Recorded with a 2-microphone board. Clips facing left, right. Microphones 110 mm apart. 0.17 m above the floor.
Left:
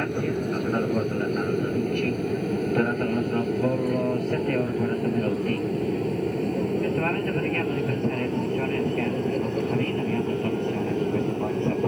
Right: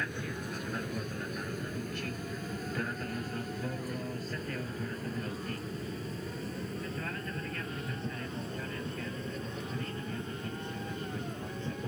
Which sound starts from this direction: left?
An aircraft, at 0.0 s.